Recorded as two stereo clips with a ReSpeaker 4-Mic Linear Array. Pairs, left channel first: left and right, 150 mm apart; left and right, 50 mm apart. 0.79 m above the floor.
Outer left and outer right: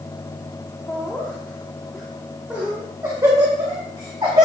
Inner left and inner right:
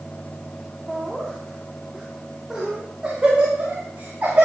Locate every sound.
0.9 s laughter: 15° left (ahead or behind), 2 m; by 4.5 s 35° right (ahead or behind), 3 m